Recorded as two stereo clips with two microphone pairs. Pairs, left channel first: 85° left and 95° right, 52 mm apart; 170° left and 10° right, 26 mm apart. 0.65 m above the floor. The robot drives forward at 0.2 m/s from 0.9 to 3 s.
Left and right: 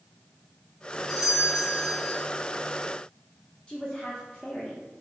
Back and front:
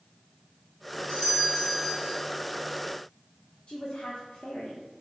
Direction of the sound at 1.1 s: 165° left.